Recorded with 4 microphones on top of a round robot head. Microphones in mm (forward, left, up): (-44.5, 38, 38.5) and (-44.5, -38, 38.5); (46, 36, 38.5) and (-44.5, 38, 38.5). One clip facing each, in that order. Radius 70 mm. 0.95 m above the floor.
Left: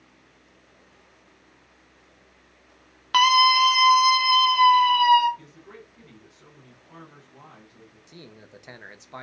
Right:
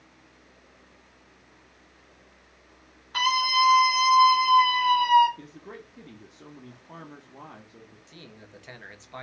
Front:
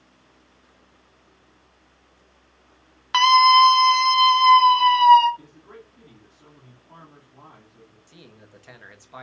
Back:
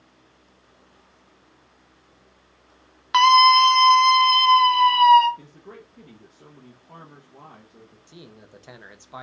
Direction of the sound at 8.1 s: 140° left.